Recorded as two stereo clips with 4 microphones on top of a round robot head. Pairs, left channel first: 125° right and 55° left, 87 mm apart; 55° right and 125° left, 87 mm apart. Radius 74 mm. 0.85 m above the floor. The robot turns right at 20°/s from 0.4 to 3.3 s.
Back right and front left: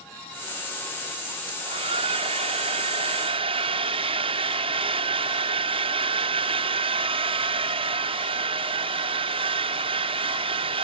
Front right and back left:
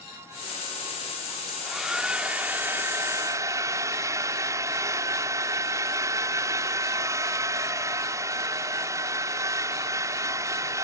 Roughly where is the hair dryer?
Ahead left.